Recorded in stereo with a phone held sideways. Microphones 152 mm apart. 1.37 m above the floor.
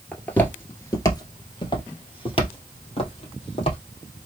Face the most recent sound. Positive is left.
turn(degrees=35)  # may be behind; listen again after turning